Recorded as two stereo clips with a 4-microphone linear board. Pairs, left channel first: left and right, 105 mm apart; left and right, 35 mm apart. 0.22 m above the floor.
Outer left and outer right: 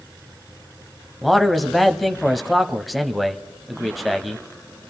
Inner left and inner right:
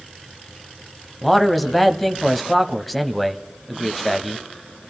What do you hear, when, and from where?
1.2 s a man speaking: centre (ahead or behind), 0.9 m